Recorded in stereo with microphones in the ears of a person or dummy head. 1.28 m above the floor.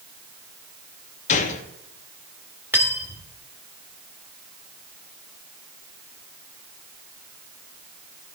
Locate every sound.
1.3 s a gunshot: 40° left (ahead or behind), 0.7 m
2.7 s cutlery clinking: 10° right (ahead or behind), 1.4 m